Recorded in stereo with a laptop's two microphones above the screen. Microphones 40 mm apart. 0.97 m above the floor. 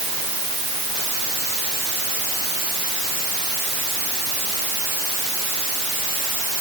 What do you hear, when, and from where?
Only background noise.